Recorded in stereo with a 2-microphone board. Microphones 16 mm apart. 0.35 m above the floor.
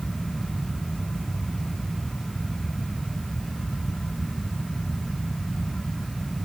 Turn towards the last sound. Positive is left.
No sound to turn to.